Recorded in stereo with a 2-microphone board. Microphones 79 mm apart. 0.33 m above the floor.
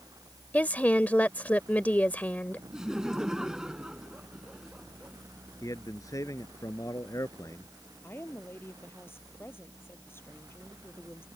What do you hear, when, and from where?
0.5 s a woman speaking: 20° left (ahead or behind)
2.7 s laughter: 10° right (ahead or behind)
5.6 s a man speaking: 45° left (ahead or behind)
8.0 s a woman speaking: 30° left (ahead or behind)